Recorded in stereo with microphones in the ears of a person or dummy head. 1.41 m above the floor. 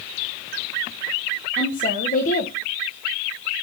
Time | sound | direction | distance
1.6 | a woman speaking | 35° left (ahead or behind) | 1.0 m